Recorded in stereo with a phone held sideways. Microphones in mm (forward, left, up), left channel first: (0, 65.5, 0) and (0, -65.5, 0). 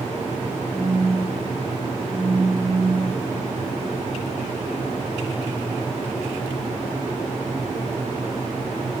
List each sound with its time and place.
0.7 s a phone buzzing: 35° left (ahead or behind), 5.5 m